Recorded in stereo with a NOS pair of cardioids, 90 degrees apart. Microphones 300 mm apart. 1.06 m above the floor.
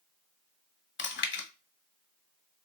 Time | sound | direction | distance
1.0 | chewing | 35° left | 1.2 m